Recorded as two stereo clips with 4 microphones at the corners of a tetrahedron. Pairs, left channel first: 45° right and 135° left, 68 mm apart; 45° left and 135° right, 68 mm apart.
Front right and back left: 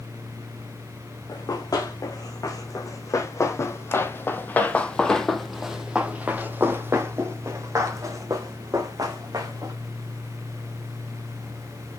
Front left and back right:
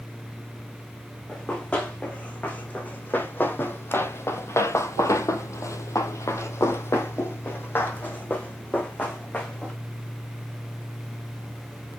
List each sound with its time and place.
1.3 s running footsteps: 30° right, 2.5 m; by 9.7 s 110° left, 3 m